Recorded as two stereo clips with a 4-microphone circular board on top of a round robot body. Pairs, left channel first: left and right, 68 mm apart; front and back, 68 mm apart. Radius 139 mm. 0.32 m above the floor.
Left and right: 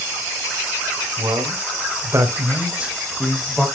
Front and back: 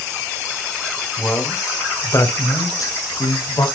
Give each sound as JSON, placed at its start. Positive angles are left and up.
{"t": 1.2, "sound": "a man speaking", "azimuth_deg": -70, "distance_m": 3.0}